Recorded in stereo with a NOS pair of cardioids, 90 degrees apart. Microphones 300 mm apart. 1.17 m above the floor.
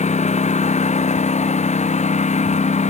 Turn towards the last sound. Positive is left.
turn(degrees=20)